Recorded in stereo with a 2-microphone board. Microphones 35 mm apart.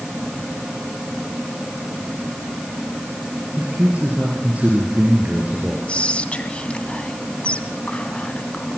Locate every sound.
3.6 s a man speaking: 45° right (ahead or behind), 3.5 m
5.9 s whispering: 35° left (ahead or behind), 1.6 m